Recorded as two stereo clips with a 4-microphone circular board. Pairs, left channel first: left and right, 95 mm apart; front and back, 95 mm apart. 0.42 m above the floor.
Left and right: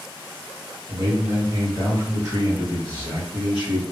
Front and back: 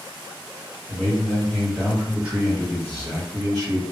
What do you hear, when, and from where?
0.9 s a man speaking: 80° right, 1.8 m; by 3.8 s 155° right, 1.8 m